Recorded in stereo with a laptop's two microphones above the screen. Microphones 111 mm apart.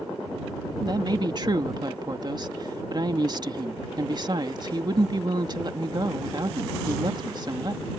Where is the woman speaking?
40° right (ahead or behind).